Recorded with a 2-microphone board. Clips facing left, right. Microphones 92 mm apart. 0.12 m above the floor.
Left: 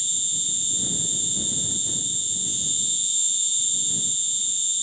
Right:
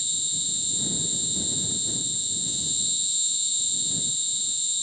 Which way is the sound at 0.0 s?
5° right (ahead or behind).